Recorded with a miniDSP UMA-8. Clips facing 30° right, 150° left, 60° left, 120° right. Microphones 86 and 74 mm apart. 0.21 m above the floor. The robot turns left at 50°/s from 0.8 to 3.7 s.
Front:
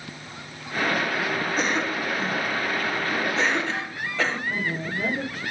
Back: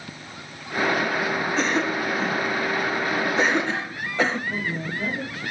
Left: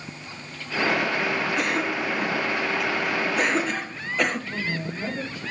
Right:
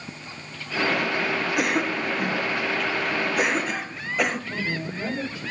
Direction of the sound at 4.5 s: 50° right.